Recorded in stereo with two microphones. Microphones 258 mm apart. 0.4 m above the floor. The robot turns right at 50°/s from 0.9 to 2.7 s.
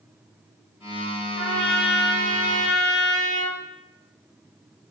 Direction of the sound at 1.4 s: 60° left.